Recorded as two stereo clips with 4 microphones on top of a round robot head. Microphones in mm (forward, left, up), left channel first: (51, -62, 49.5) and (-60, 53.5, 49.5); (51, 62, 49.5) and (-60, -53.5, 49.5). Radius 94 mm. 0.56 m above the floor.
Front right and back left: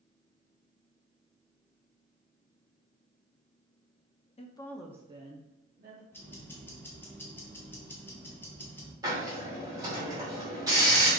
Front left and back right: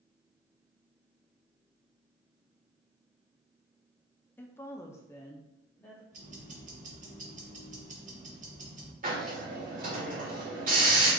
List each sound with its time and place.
4.4 s a woman speaking: 25° right, 0.8 m; by 6.0 s 125° left, 1.4 m
6.1 s ticking: 120° right, 1.3 m
9.0 s a hiss: 160° right, 2 m